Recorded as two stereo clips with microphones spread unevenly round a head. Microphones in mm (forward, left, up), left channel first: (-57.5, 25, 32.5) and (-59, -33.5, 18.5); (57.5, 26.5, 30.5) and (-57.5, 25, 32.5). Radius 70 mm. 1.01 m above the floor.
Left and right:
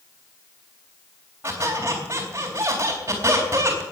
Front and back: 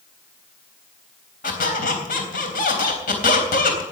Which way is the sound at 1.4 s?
20° right.